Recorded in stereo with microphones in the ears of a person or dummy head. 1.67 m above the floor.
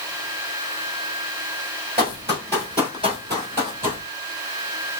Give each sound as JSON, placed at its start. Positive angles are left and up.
{"t": 2.0, "sound": "running footsteps", "side_deg": -30, "distance_m": 2.0}